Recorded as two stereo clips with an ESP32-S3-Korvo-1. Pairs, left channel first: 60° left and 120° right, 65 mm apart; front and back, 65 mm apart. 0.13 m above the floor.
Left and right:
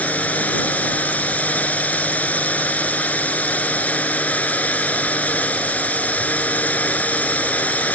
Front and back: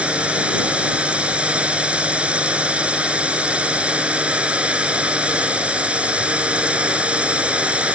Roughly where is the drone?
Behind left.